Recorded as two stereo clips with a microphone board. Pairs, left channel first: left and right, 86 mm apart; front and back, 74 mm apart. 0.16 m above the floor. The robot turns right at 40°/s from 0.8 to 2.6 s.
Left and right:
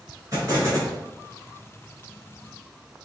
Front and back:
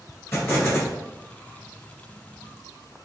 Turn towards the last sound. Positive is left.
turn(degrees=25)